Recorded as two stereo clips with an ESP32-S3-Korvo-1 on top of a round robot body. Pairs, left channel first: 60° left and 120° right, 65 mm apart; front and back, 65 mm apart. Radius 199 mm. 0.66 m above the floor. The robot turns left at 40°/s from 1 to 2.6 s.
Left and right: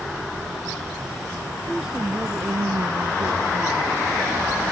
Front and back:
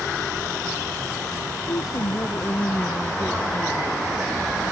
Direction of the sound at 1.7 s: 30° right.